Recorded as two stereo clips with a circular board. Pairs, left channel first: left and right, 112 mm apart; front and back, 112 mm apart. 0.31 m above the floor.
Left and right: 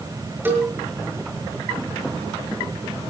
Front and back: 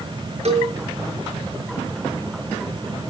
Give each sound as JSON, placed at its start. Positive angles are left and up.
{"t": 0.5, "sound": "a cowbell", "azimuth_deg": -160, "distance_m": 5.5}